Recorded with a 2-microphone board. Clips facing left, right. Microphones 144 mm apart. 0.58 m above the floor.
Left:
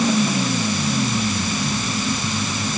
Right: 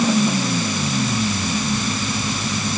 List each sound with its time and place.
Only background noise.